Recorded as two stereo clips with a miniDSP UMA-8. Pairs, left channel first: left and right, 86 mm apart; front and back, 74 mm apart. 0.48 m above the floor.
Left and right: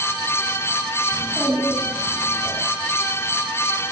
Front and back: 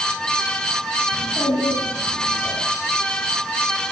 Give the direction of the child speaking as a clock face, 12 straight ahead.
12 o'clock.